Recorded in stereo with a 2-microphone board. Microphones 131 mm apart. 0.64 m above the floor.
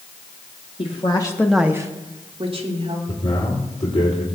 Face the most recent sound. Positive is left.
turn(degrees=60)  # may be behind; listen again after turning